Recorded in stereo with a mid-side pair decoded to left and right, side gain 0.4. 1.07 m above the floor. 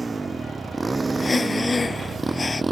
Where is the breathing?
30° left.